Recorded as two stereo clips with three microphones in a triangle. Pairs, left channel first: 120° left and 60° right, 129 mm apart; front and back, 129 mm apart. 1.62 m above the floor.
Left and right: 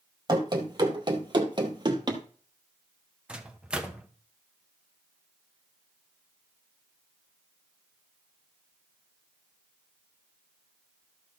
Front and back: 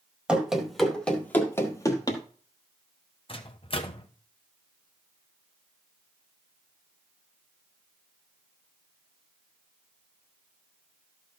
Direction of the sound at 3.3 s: 20° left.